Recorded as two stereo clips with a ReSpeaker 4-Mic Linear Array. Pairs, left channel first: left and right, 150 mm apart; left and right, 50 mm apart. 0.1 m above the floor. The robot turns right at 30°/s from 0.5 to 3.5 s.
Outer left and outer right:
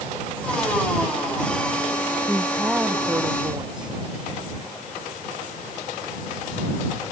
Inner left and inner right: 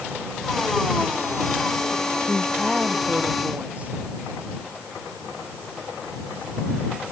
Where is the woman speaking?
175° left; by 4.0 s 150° right.